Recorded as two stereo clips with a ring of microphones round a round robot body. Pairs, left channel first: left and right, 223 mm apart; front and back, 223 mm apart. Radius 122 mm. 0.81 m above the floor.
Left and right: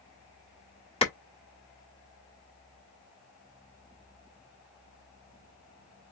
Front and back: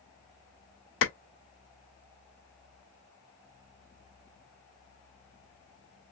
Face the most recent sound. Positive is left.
turn(degrees=25)